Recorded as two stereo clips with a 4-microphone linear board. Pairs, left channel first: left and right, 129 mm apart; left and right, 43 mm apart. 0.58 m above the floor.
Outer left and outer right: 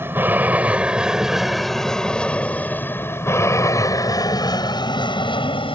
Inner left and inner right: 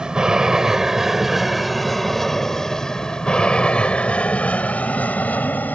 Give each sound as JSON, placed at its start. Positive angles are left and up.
{"t": 0.0, "sound": "an aircraft", "side_deg": -15}